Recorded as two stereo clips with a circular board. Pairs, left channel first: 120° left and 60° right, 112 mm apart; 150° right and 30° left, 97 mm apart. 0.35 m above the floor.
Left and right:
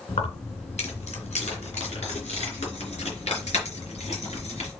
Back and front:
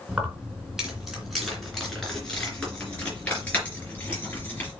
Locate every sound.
0.1 s keys jangling: 110° left, 2.5 m; by 4.7 s 140° left, 4 m